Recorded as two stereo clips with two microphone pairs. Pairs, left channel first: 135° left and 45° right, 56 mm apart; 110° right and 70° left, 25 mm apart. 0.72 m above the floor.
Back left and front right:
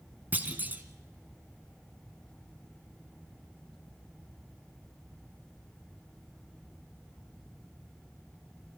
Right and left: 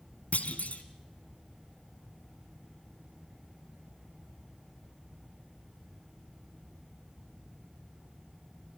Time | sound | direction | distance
0.3 | a clunk | 105° right | 1.5 m